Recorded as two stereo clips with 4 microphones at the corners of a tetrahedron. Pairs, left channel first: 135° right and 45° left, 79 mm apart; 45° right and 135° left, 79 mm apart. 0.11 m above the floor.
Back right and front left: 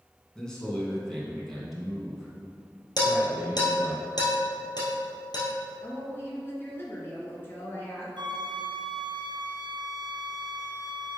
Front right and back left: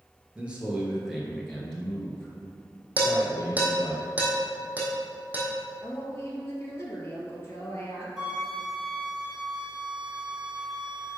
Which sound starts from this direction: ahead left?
A flute, at 8.2 s.